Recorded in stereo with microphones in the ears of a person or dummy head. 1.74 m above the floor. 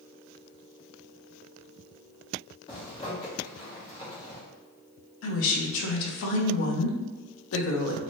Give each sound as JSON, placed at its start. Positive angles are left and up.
{"t": 2.7, "sound": "a zipper", "side_deg": 25, "distance_m": 1.0}
{"t": 5.2, "sound": "a woman speaking", "side_deg": 70, "distance_m": 0.7}